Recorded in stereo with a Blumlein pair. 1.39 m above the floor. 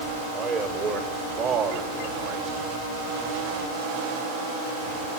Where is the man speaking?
25° right, 5 m; by 2.6 s 40° right, 4.5 m.